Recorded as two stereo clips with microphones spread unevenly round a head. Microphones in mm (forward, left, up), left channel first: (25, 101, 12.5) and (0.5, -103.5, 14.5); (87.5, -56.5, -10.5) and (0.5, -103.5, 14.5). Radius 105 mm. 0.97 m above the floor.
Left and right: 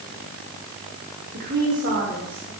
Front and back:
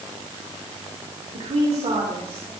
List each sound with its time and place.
1.3 s a woman speaking: 145° right, 2.5 m; by 2.5 s 130° right, 4 m